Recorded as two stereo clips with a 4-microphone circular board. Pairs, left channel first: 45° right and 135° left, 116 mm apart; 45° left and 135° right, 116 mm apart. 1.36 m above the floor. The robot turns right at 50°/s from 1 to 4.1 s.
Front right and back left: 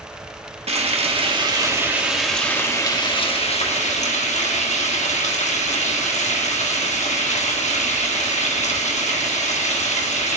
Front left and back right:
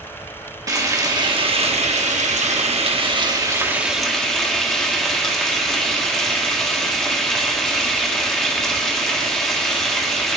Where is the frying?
165° left, 1.6 m; by 10.4 s 40° right, 1.6 m.